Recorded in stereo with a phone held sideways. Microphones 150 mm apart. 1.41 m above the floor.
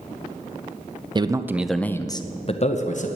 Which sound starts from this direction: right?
A man speaking, at 1.1 s.